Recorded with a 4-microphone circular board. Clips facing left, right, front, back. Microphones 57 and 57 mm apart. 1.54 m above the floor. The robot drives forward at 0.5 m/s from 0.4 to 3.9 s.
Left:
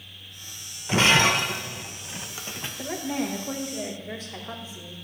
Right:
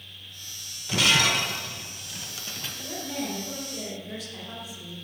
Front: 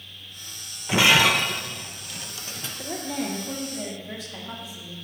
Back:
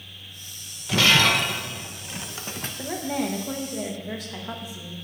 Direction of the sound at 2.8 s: 135° left.